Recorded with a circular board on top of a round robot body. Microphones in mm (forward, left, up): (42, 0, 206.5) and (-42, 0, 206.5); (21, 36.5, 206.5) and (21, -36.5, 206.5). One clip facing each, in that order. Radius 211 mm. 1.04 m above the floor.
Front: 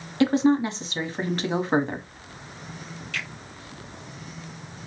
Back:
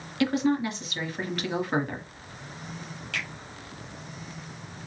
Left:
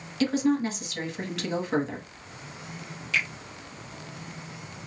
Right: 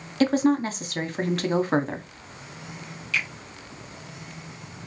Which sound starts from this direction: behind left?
A finger snap, at 3.1 s.